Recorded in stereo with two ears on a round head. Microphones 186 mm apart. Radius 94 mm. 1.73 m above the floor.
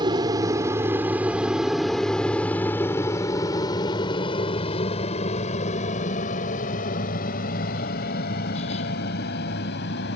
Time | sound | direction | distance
0.0 | an aircraft | 20° right (ahead or behind) | ?